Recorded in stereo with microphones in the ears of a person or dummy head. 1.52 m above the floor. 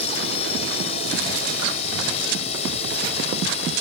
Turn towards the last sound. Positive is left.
turn(degrees=35)  # may be behind; listen again after turning